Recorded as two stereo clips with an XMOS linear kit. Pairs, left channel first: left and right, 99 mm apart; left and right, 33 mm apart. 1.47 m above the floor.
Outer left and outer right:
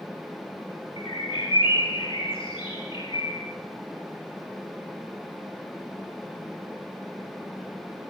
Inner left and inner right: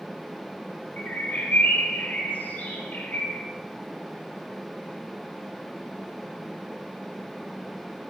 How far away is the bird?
About 4.5 m.